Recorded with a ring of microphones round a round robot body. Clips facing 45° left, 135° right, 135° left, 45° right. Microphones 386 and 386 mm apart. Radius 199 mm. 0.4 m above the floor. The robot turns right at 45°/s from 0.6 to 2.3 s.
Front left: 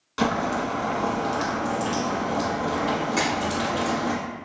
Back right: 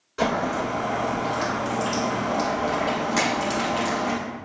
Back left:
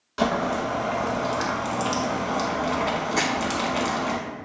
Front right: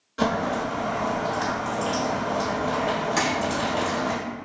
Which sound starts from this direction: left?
Boiling, at 0.2 s.